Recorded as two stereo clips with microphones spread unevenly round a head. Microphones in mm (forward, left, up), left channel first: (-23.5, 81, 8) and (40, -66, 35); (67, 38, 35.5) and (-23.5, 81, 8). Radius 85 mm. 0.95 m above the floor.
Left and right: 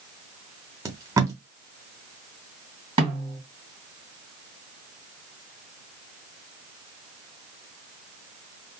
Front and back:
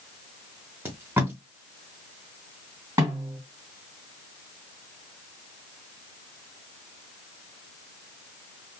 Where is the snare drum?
125° right, 1.9 m.